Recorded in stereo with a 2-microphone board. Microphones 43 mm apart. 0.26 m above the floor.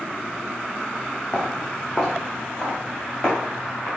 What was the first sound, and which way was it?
Footsteps, 15° left (ahead or behind).